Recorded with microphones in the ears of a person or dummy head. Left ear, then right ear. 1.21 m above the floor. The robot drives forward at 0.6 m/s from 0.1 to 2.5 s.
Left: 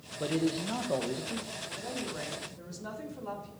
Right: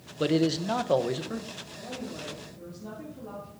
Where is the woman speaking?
60° left (ahead or behind), 2.5 m; by 3.5 s 55° left (ahead or behind), 2.5 m.